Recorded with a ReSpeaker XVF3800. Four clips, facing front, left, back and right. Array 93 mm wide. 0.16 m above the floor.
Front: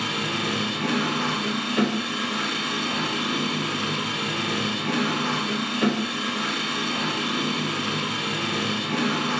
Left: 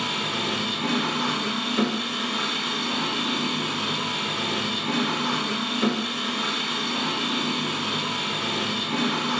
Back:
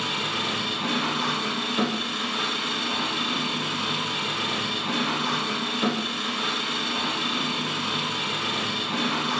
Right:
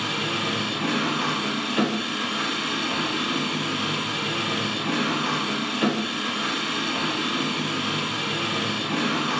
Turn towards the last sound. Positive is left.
turn(degrees=-40)